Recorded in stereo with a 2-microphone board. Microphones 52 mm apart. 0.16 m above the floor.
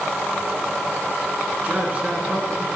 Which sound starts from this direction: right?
A man speaking, at 1.6 s.